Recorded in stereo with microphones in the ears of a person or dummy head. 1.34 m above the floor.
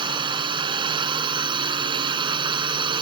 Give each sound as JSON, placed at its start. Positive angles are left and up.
{"t": 0.0, "sound": "a drone", "side_deg": -20}